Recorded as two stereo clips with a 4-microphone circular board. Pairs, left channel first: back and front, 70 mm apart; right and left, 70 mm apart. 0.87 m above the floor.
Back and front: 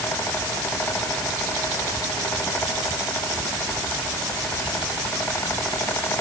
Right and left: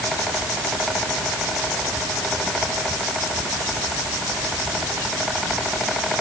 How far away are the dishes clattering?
No dishes clattering in this recording.